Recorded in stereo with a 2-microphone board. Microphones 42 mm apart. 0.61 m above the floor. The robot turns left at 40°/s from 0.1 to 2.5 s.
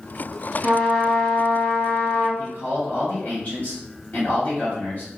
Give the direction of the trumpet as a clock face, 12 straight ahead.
6 o'clock.